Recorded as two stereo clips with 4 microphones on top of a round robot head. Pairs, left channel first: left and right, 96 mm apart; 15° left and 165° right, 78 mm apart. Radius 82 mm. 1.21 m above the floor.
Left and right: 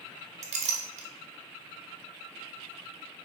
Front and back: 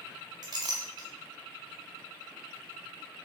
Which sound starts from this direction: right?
A clink, at 0.4 s.